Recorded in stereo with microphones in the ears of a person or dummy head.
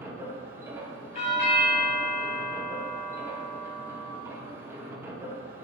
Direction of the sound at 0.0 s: 15° right (ahead or behind).